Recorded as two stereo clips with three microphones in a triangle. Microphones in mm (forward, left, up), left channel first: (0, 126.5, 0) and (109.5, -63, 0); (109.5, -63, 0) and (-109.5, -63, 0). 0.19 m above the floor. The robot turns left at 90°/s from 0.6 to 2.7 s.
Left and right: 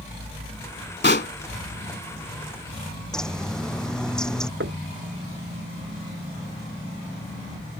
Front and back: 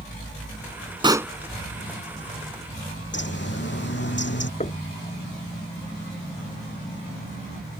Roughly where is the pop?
Behind left.